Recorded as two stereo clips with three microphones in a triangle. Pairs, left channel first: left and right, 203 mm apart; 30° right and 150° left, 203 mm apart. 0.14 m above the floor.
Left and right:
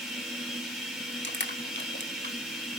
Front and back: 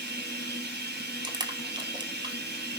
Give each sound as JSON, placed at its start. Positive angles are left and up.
{"t": 0.0, "sound": "running water", "azimuth_deg": 180, "distance_m": 4.0}
{"t": 1.2, "sound": "crushing", "azimuth_deg": 85, "distance_m": 1.9}